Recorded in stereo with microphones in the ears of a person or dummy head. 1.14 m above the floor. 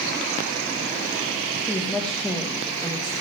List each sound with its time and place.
1.7 s a woman speaking: 5° left (ahead or behind), 1.9 m